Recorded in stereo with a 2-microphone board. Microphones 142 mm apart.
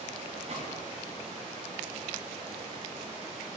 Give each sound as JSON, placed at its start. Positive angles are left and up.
{"t": 0.5, "sound": "a gunshot", "side_deg": -60, "distance_m": 4.0}